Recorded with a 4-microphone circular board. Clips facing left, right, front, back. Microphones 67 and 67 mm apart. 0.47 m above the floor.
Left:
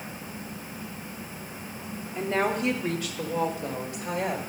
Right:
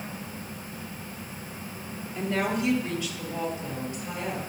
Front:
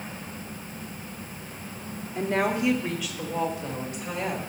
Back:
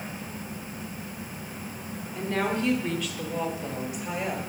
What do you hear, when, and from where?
2.1 s a woman speaking: 45° left, 0.9 m; by 4.4 s 100° left, 2 m